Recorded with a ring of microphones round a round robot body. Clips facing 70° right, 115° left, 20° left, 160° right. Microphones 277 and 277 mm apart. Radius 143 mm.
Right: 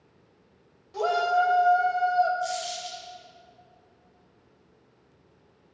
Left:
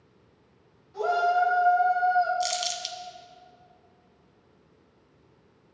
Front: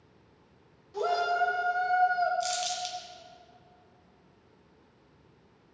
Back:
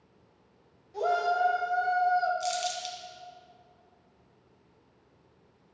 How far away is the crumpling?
About 1.1 m.